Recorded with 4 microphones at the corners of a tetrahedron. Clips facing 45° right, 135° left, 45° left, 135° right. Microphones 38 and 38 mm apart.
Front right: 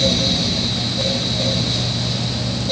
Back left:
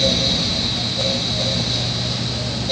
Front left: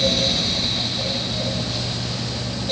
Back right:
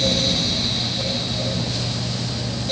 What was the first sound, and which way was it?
Only background noise.